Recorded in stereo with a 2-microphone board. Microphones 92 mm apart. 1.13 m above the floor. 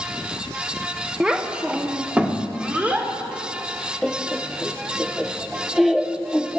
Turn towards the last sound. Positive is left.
turn(degrees=0)  # may be behind; listen again after turning